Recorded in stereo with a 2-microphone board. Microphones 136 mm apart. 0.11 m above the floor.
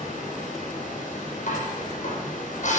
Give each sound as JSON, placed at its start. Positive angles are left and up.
{"t": 0.0, "sound": "running water", "side_deg": 70, "distance_m": 8.5}
{"t": 1.5, "sound": "dishes clattering", "side_deg": 65, "distance_m": 3.5}